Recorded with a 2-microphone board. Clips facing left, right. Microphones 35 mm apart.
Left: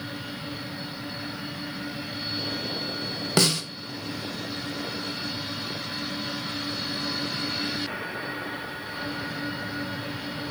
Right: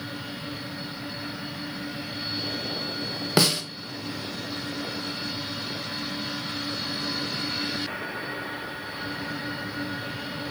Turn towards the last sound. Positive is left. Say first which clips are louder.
# right 1 dB
turn(degrees=-10)  # may be behind; listen again after turning